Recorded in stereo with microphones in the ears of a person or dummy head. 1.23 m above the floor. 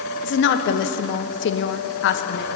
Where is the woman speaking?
55° left (ahead or behind), 0.7 m.